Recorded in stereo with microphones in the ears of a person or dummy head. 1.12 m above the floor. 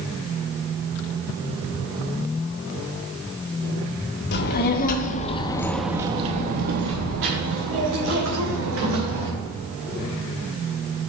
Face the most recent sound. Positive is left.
turn(degrees=-85)